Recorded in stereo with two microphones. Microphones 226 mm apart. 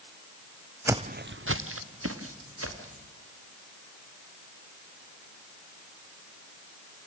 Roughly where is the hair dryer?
No hair dryer in this recording.